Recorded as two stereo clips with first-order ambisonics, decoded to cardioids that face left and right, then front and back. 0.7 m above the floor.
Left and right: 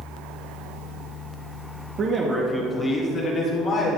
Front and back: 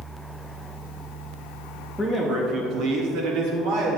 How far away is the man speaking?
About 0.9 m.